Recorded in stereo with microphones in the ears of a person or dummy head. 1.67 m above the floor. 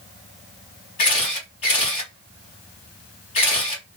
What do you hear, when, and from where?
1.0 s a camera shutter: 35° left (ahead or behind), 2.5 m